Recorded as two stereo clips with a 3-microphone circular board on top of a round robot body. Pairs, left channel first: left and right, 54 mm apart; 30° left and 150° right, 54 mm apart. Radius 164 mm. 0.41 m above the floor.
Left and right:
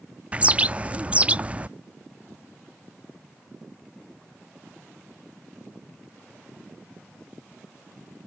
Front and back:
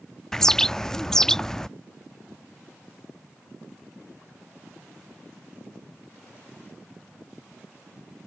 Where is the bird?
40° right.